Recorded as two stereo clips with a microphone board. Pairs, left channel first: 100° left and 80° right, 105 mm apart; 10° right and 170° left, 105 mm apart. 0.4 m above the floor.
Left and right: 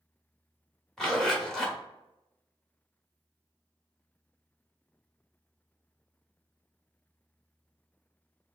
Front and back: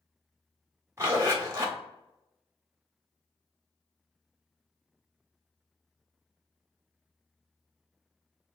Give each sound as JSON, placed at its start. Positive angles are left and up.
{"t": 1.0, "sound": "a zipper", "azimuth_deg": 175, "distance_m": 1.2}